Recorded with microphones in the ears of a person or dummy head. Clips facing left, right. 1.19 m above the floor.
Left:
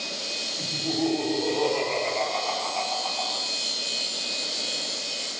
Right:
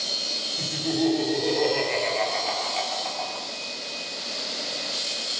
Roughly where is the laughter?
Centre.